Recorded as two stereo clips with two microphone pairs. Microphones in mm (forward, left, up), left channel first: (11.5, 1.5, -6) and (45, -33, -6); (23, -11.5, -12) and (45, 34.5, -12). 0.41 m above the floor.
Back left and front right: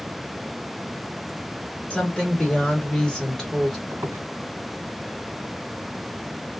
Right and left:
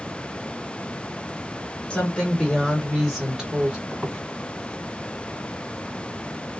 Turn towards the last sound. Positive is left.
turn(degrees=-40)